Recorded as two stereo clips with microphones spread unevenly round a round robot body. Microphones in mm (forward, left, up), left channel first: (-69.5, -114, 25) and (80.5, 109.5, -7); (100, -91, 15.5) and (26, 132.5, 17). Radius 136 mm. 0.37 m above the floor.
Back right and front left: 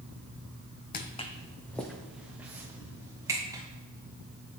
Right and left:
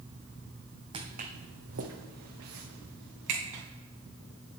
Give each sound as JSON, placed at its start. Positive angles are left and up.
{"t": 0.9, "sound": "footsteps", "azimuth_deg": 180, "distance_m": 0.8}